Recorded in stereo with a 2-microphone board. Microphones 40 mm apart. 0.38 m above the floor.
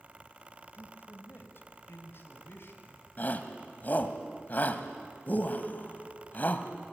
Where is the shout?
45° left (ahead or behind), 2 m.